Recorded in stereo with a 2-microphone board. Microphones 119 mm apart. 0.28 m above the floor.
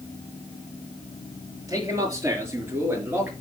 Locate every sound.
1.7 s a man speaking: 25° right (ahead or behind), 5 m; by 3.3 s 15° right (ahead or behind), 4.5 m